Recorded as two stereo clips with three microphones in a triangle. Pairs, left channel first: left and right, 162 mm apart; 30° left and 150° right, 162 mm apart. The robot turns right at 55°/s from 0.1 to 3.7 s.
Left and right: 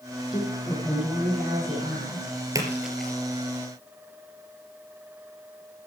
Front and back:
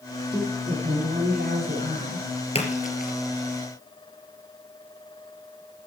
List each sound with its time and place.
0.3 s a woman speaking: 145° left, 7 m; by 2.3 s 105° right, 7 m
2.5 s a splash: 20° right, 3.5 m; by 3.1 s 10° left, 3.5 m